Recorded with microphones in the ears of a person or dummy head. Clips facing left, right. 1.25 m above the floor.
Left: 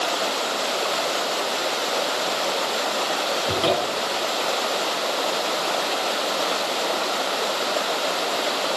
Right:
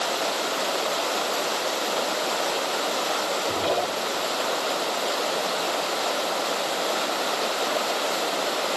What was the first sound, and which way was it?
A cupboard door, 65° left (ahead or behind).